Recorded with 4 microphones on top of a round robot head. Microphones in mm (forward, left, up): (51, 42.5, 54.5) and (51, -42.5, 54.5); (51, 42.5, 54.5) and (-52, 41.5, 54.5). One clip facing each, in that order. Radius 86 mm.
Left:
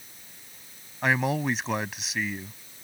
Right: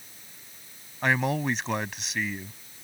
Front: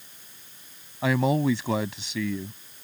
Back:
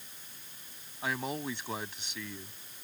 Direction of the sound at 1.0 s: Straight ahead.